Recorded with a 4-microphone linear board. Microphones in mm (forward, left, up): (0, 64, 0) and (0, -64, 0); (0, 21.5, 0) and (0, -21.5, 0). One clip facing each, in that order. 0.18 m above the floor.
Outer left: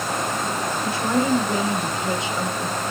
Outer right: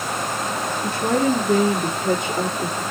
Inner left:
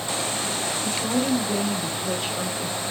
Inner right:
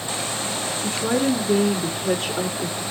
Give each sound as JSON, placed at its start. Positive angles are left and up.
{"t": 0.8, "sound": "a woman speaking", "side_deg": -45, "distance_m": 2.5}